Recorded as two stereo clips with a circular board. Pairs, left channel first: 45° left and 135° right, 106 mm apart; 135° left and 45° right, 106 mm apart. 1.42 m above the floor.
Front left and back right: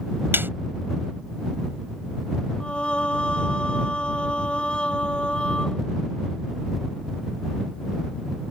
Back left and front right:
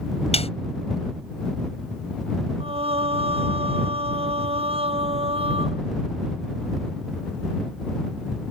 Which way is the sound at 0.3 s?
155° left.